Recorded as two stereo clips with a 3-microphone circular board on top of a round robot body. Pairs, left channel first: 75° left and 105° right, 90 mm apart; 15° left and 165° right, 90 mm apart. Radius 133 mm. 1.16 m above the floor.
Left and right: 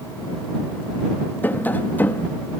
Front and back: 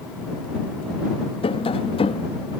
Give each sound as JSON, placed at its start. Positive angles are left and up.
{"t": 1.4, "sound": "tapping", "azimuth_deg": 5}